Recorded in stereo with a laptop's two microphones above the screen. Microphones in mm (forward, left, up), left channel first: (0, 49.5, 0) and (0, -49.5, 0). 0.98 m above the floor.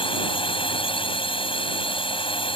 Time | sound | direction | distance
0.0 | a drone | 60° left (ahead or behind) | ?